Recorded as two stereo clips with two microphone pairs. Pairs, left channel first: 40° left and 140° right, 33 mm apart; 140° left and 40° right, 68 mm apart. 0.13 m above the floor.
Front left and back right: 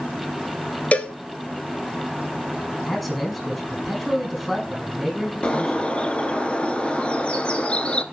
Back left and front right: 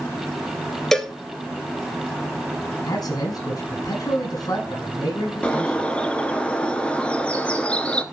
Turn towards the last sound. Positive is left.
turn(degrees=75)